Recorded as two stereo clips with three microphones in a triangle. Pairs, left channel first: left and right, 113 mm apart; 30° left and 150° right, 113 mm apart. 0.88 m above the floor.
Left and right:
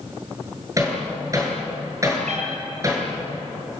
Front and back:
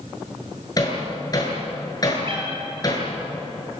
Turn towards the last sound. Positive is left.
turn(degrees=-105)